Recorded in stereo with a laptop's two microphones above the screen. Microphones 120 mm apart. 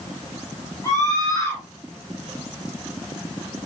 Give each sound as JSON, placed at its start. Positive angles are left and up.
{"t": 0.8, "sound": "a scream", "side_deg": 30, "distance_m": 6.5}